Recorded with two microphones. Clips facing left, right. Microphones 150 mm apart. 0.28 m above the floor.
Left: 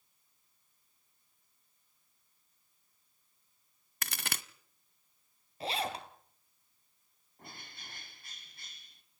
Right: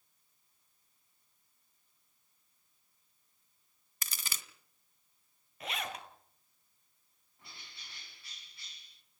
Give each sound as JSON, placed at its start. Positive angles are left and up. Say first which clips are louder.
{"t": 4.0, "sound": "a crack", "louder": "left 6 dB", "side_deg": 60, "distance_m": 0.9}
{"t": 5.6, "sound": "a zipper", "louder": "left 5 dB", "side_deg": 30, "distance_m": 2.0}
{"t": 7.4, "sound": "a bird", "louder": "left 6 dB", "side_deg": 50, "distance_m": 2.0}